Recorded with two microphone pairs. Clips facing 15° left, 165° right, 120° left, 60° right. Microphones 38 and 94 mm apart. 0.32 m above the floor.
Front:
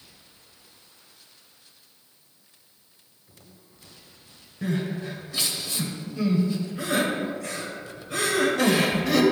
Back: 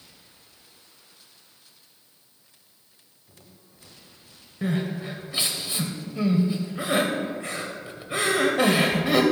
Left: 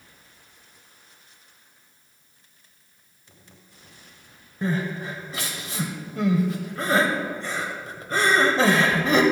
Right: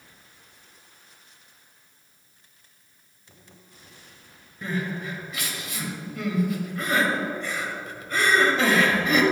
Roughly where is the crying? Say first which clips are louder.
Back 1 dB, left 3 dB; behind left.